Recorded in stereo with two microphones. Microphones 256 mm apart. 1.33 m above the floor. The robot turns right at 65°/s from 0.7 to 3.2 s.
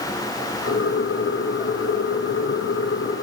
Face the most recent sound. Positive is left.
No sound to turn to.